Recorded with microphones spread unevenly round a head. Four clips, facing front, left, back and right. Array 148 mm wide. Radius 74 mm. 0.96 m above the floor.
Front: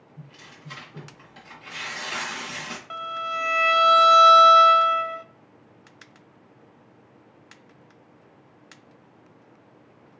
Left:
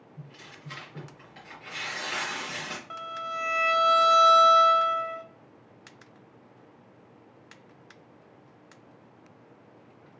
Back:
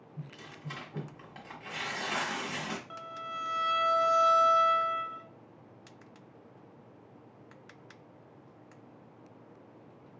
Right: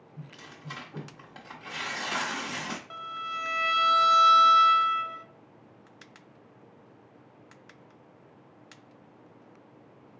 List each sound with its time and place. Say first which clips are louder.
0.2 s tearing paper: right 2 dB, back 1 dB; 115° right, 1.5 m
2.9 s a violin: left 1 dB, front 10 dB; 20° left, 0.5 m